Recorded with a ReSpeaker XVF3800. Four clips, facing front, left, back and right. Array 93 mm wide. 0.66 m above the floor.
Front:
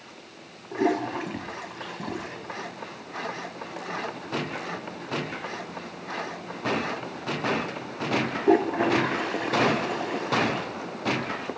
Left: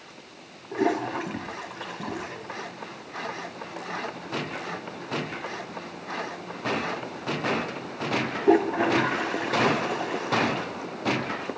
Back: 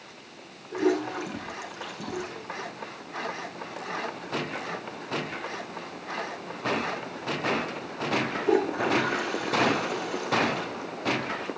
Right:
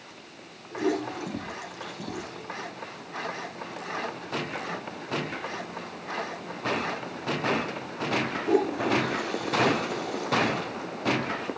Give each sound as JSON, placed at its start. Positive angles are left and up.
{"t": 0.7, "sound": "a toilet flushing", "azimuth_deg": 50, "distance_m": 5.5}